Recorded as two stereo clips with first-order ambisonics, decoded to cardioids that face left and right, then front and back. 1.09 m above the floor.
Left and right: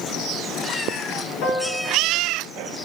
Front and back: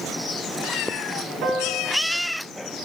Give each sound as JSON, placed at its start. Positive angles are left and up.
{"t": 1.4, "sound": "a piano", "azimuth_deg": 135, "distance_m": 1.3}